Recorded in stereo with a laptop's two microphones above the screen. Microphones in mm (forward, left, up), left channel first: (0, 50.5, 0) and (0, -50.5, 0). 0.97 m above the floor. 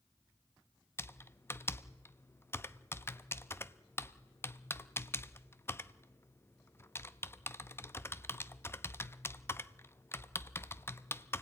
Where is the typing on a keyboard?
25° left (ahead or behind), 0.5 m.